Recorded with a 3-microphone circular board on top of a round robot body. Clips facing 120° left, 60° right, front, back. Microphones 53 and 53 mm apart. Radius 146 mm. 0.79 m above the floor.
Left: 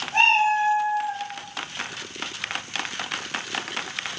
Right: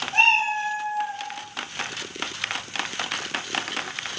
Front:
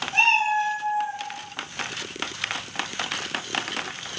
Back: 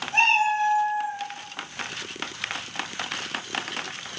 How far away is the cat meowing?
About 0.8 m.